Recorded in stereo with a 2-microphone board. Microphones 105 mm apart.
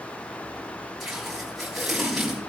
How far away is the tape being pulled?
About 8.5 m.